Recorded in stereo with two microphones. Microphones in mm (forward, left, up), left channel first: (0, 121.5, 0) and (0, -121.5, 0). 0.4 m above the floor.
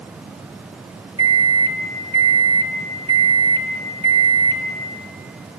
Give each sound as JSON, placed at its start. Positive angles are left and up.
{"t": 1.2, "sound": "a microwave", "side_deg": -15, "distance_m": 1.2}